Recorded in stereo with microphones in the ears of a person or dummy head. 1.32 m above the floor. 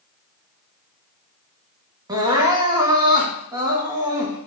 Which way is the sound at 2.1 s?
20° right (ahead or behind).